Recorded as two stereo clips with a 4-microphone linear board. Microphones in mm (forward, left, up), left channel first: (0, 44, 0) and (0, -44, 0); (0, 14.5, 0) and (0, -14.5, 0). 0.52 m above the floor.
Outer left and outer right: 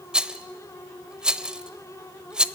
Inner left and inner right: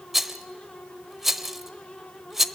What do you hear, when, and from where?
0.1 s a rattle: 10° right (ahead or behind), 0.7 m